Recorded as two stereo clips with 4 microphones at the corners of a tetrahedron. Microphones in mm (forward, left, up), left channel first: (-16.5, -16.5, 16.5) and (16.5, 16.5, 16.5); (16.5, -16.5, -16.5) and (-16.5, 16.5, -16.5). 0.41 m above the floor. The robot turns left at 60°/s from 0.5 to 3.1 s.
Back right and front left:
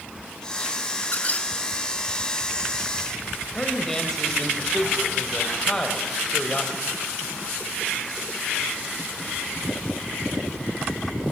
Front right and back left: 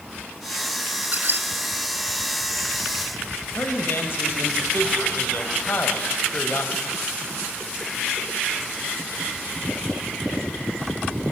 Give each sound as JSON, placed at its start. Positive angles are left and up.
{"t": 1.0, "sound": "a squeak", "azimuth_deg": -175, "distance_m": 1.4}
{"t": 3.5, "sound": "a man speaking", "azimuth_deg": -60, "distance_m": 1.9}